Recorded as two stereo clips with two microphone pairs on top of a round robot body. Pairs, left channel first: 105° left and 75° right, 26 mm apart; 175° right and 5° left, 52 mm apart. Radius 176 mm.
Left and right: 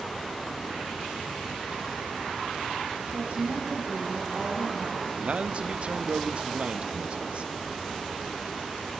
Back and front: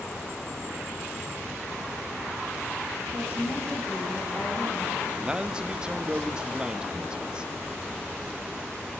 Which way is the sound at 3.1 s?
55° right.